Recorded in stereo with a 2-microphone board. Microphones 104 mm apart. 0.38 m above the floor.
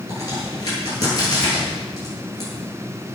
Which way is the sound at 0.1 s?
35° left (ahead or behind).